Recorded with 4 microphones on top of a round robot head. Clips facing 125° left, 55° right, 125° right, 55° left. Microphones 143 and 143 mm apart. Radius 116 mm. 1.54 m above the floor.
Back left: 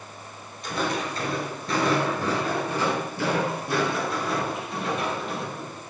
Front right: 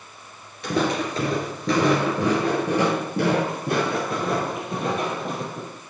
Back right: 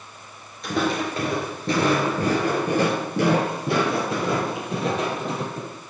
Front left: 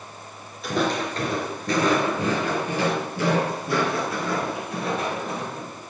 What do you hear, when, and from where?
0.6 s footsteps: 35° right, 1.8 m; by 5.8 s 105° right, 3.5 m